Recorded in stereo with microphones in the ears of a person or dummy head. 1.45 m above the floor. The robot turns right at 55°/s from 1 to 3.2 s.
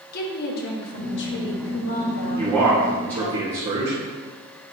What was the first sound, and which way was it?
A woman speaking, 60° left.